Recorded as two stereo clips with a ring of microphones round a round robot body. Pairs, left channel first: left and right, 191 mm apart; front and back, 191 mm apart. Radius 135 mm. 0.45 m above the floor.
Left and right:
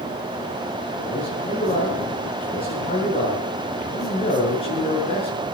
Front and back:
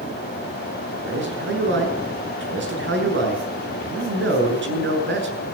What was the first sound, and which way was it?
A man speaking, 160° left.